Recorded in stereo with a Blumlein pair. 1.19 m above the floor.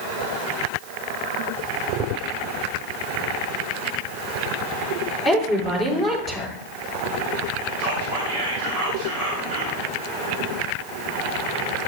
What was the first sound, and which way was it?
A woman speaking, 10° right.